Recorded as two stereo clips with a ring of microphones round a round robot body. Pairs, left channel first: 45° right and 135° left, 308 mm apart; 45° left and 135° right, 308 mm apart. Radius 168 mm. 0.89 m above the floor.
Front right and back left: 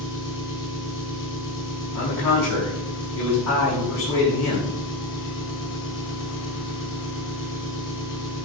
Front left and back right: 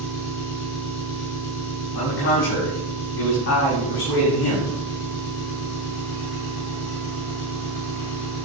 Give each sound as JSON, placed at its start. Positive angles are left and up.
{"t": 0.0, "sound": "an engine running", "azimuth_deg": 10, "distance_m": 5.0}
{"t": 1.9, "sound": "a man speaking", "azimuth_deg": -5, "distance_m": 7.0}